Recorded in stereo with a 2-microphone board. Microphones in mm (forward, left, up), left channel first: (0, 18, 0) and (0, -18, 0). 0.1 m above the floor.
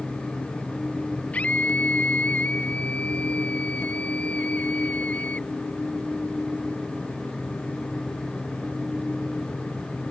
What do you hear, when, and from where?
1.3 s a scream: 40° left (ahead or behind)